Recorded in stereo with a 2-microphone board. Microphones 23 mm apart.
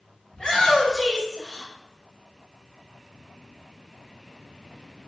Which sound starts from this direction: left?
A shout, at 0.3 s.